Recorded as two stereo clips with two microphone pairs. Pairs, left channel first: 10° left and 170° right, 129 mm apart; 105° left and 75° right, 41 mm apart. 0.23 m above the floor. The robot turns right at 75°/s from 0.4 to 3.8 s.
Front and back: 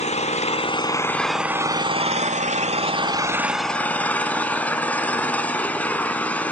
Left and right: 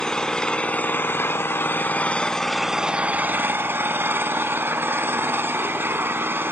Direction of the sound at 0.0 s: 35° left.